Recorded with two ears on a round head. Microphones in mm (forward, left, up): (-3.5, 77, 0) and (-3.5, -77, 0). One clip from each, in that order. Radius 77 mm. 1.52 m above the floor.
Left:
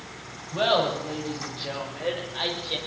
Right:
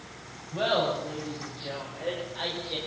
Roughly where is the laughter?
Left.